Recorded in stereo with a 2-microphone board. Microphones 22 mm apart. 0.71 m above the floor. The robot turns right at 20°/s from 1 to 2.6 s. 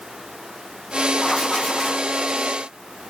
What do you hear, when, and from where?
1.2 s writing: 25° left (ahead or behind), 1.2 m; by 2.1 s 20° left (ahead or behind), 1.2 m